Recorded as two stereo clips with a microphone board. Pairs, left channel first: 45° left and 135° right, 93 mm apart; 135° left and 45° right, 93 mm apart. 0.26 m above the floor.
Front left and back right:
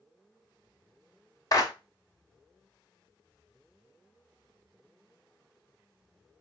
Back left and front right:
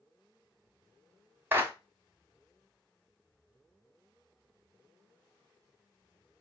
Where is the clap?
10° left, 1.1 m.